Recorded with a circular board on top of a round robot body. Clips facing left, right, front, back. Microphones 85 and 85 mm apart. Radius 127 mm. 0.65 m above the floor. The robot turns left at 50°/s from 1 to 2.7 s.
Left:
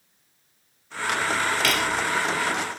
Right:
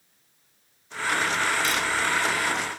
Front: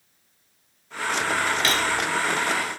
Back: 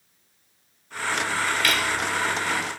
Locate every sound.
1.6 s cutlery clinking: 65° left; by 2.0 s 45° left